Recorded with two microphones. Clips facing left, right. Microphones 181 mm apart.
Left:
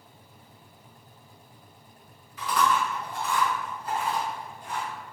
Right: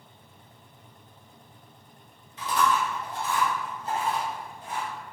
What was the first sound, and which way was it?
Chewing, 25° right (ahead or behind).